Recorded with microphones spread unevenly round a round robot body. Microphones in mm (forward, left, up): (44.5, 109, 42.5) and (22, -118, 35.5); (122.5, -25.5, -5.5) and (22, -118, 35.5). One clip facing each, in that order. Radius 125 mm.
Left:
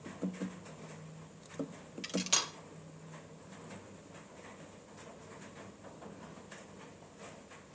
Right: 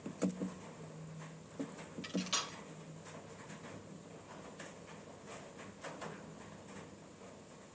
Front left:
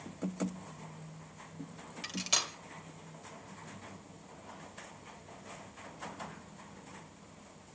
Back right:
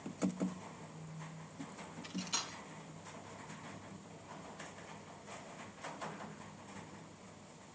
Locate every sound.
2.0 s cutlery clinking: 55° left, 1.6 m